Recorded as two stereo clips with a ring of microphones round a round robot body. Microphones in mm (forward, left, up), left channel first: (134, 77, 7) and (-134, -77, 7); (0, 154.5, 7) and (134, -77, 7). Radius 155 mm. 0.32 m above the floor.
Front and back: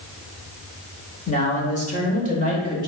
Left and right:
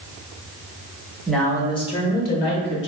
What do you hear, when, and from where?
1.3 s a man speaking: 30° left, 1.0 m; by 2.9 s 90° left, 1.6 m